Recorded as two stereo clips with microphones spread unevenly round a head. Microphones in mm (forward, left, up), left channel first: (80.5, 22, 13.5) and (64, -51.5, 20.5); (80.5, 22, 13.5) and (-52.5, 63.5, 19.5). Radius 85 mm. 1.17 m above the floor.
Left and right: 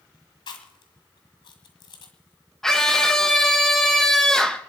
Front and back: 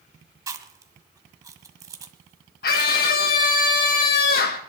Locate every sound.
0.5 s chewing: 100° left, 1.7 m
2.6 s a scream: 5° right, 1.1 m